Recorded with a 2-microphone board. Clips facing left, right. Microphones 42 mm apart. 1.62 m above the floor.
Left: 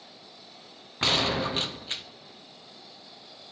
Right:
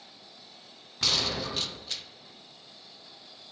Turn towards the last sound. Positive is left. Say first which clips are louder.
# left 5 dB
turn(degrees=30)  # may be behind; listen again after turning